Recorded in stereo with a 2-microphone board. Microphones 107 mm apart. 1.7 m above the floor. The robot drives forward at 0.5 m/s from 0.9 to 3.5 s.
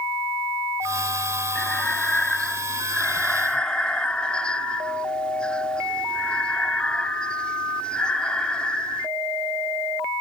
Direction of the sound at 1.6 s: 10° left (ahead or behind).